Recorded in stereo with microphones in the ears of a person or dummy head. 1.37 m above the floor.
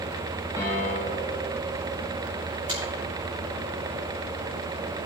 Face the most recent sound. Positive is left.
turn(degrees=-40)  # may be behind; listen again after turning